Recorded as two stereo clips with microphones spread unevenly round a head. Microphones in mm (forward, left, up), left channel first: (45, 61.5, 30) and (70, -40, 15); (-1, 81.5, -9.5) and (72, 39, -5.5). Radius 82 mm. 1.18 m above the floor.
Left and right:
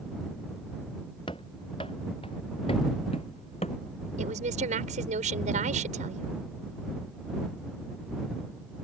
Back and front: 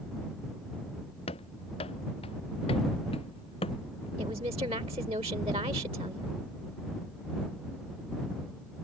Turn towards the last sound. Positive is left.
turn(degrees=-85)